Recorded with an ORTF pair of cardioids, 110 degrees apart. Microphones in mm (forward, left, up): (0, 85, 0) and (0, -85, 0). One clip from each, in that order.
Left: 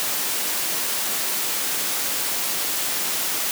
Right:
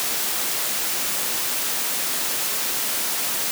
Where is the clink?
No clink in this recording.